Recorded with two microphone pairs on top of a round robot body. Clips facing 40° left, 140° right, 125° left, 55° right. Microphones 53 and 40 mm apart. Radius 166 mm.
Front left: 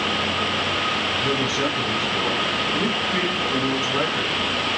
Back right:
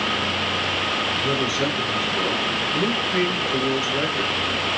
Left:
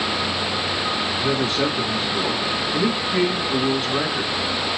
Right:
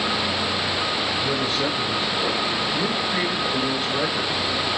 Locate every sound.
1.2 s a man speaking: 90° left, 2.5 m